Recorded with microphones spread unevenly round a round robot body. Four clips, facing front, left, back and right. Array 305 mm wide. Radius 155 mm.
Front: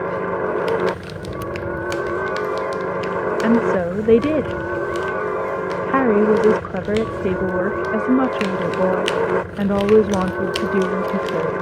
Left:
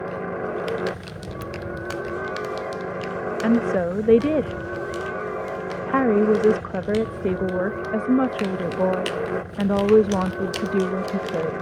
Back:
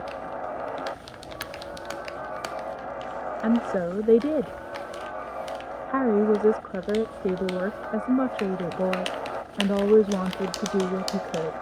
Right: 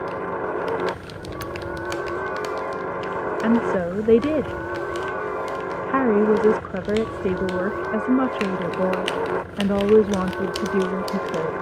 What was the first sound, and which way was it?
A helicopter, 15° left.